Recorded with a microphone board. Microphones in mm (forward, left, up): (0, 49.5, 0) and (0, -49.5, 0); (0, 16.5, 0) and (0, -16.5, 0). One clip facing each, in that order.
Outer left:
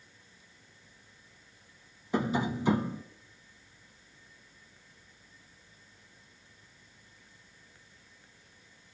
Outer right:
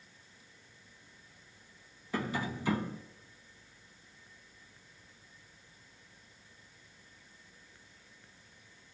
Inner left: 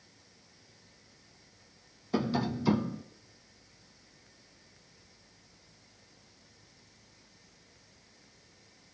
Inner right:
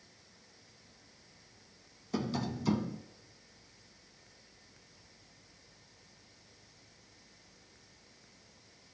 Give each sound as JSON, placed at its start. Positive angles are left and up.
{"t": 2.1, "sound": "tapping", "side_deg": 20, "distance_m": 0.6}